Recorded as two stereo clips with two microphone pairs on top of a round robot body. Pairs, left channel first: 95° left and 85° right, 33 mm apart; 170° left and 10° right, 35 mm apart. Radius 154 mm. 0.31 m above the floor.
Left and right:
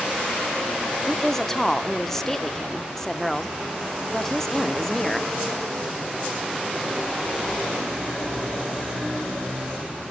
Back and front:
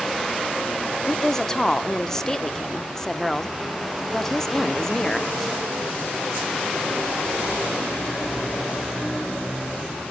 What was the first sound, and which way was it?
A woman speaking, 125° left.